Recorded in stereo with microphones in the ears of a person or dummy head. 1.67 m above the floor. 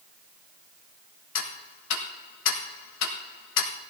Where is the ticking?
75° left (ahead or behind), 1.5 m.